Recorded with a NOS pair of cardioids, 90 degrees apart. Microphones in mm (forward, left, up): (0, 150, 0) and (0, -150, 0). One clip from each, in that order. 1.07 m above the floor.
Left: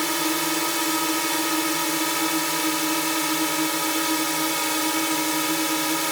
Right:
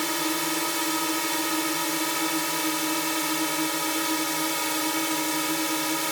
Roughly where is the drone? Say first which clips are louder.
Left 3 dB; ahead left.